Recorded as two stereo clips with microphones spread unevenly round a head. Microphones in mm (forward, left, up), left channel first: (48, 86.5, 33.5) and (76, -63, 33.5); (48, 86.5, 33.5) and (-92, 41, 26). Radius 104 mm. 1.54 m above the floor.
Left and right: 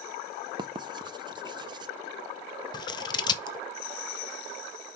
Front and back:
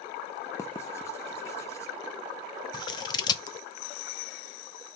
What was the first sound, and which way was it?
Writing, 40° right.